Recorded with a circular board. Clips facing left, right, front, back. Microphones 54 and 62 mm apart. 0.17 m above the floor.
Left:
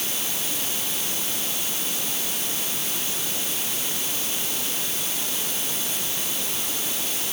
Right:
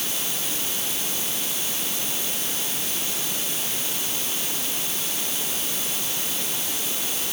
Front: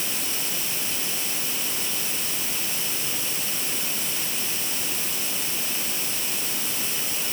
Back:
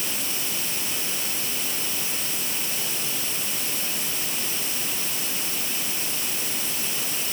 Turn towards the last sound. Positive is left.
No sound to turn to.